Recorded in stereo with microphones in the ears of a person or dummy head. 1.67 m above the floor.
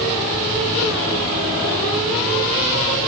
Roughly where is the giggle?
No giggle in this recording.